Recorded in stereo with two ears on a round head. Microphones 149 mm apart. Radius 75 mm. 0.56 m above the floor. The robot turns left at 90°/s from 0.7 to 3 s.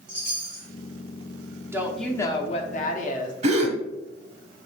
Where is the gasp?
40° right (ahead or behind), 1.1 m.